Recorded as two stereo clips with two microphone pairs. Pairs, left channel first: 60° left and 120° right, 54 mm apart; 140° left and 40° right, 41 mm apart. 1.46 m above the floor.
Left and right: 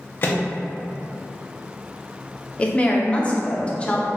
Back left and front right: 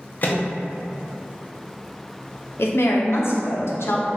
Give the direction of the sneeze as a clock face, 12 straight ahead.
I don't hear a sneeze.